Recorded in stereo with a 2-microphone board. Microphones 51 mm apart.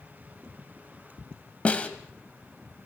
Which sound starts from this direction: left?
A snare drum, at 1.6 s.